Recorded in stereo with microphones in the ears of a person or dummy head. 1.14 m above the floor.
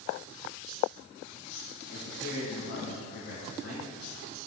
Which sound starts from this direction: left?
A man speaking, at 1.9 s.